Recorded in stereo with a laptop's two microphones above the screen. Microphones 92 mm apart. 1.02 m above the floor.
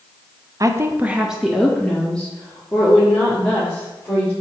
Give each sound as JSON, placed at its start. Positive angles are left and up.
{"t": 0.6, "sound": "a woman speaking", "side_deg": -40, "distance_m": 0.7}